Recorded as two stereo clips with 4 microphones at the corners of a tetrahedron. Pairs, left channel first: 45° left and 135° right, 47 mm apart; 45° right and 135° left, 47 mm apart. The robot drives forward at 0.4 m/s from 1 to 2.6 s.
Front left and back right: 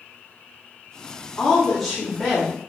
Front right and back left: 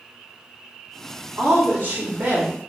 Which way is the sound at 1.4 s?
115° left.